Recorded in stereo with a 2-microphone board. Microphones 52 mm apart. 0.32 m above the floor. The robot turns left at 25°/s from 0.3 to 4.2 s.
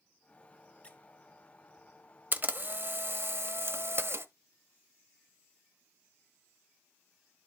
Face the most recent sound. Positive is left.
turn(degrees=-95)